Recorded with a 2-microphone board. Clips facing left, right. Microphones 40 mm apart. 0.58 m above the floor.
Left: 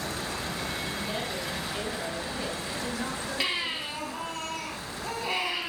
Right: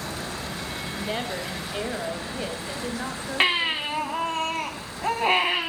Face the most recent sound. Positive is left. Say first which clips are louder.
# right 9 dB
turn(degrees=-45)  # may be behind; listen again after turning